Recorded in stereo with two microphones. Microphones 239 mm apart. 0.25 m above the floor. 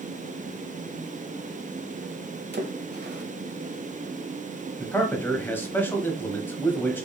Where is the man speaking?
10° left (ahead or behind), 1.0 m.